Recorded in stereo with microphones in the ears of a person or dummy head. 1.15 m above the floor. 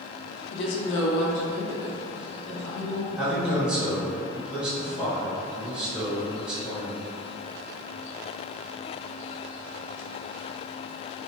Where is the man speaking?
10° right (ahead or behind), 0.7 m.